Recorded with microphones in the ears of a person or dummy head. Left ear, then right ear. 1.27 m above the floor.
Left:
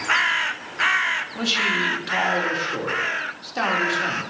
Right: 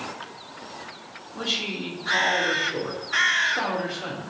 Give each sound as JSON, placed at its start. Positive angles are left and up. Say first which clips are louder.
{"t": 1.4, "sound": "a man speaking", "louder": "left 4 dB", "side_deg": 75, "distance_m": 2.5}